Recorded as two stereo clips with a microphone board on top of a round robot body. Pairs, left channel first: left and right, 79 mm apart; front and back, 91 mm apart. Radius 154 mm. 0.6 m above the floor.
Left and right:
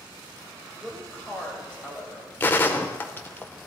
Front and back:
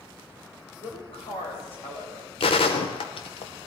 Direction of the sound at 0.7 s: Straight ahead.